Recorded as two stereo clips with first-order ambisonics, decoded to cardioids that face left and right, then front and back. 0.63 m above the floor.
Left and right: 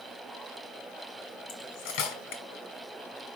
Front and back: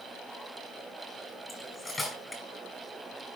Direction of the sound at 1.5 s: 85° left.